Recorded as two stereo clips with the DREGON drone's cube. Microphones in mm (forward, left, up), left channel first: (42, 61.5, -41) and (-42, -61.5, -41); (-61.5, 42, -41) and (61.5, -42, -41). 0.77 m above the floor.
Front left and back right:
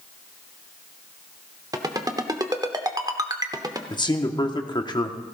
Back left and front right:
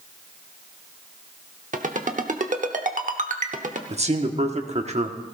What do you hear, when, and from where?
1.7 s a ringtone: 60° right, 0.9 m
3.9 s a man speaking: straight ahead, 1.1 m